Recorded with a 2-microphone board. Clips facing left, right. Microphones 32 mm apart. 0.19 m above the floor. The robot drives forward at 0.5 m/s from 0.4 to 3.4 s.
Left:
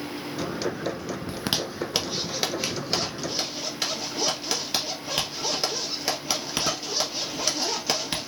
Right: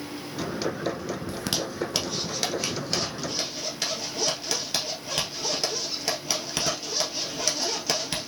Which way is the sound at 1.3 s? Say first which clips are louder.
Left 3 dB; 25° left (ahead or behind).